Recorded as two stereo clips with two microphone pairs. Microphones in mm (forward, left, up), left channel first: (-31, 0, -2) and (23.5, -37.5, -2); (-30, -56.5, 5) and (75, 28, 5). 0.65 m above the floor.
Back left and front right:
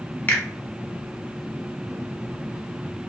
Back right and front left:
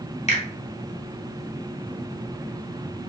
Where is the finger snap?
160° right, 0.8 m.